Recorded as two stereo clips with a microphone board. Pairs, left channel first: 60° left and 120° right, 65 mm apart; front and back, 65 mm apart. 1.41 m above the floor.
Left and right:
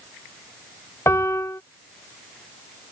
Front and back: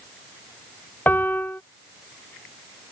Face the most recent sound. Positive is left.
turn(degrees=50)